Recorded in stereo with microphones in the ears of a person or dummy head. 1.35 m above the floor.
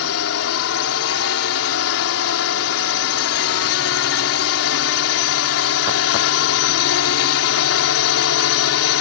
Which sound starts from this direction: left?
A drone, at 0.0 s.